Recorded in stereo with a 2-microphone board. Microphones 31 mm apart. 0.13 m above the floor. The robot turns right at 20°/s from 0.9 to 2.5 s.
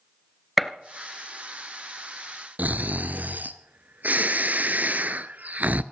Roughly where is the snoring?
Right.